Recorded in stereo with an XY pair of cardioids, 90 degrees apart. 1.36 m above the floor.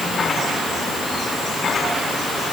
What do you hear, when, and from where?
Only background noise.